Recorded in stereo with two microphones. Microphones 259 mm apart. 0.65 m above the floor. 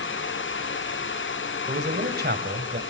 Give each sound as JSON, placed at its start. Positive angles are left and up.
{"t": 1.7, "sound": "a man speaking", "side_deg": -40, "distance_m": 3.0}